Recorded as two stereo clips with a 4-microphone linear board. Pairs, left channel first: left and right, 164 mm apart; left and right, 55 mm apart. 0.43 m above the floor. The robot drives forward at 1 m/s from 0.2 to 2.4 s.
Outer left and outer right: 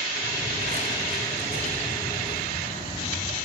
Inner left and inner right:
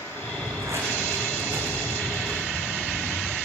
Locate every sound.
0.3 s footsteps: 65° right (ahead or behind), 2 m; by 3.3 s 75° right (ahead or behind), 4 m